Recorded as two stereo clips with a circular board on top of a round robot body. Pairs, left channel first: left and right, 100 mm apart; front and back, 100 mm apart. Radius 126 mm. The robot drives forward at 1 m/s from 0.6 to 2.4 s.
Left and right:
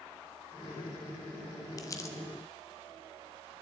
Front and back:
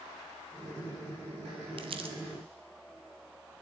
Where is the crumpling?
145° left, 1.1 m; by 2.2 s 155° left, 1.4 m.